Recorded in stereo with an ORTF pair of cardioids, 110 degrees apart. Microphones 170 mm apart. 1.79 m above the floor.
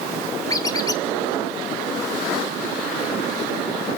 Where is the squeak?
20° left, 2 m.